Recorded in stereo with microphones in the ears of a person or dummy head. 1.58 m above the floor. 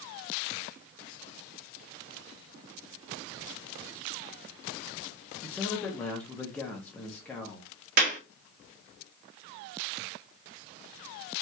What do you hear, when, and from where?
5.4 s a man speaking: 5° left (ahead or behind), 0.6 m
8.0 s a clap: 55° right (ahead or behind), 1.1 m